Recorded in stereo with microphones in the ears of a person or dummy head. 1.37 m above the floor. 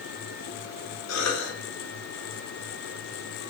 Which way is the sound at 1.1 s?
85° left.